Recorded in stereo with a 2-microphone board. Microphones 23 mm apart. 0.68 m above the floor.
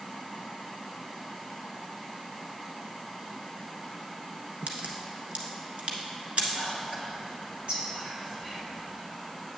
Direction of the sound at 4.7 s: 65° right (ahead or behind).